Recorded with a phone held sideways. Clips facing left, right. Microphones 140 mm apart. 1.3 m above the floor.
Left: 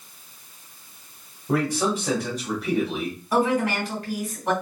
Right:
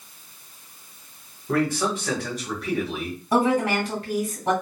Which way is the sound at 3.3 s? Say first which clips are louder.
Right 1 dB; 30° right (ahead or behind).